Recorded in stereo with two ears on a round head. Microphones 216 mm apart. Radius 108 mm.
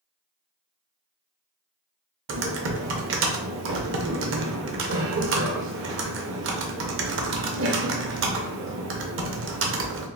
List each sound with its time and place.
2.3 s typing on a keyboard: 50° right (ahead or behind), 0.6 m